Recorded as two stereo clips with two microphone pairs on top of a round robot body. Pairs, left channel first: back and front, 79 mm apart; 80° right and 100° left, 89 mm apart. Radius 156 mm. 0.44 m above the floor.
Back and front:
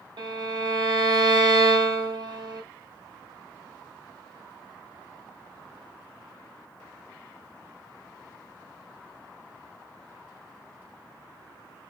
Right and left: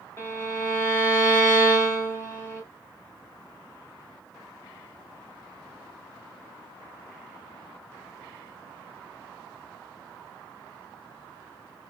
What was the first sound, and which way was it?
A violin, 15° right.